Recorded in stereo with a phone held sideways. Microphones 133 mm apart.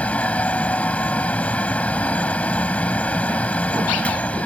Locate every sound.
0.0 s a fan: 10° left (ahead or behind)